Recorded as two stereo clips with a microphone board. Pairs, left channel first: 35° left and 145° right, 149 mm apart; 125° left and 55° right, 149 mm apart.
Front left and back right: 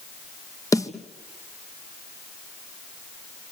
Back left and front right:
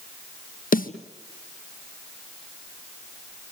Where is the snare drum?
105° left, 1.6 m.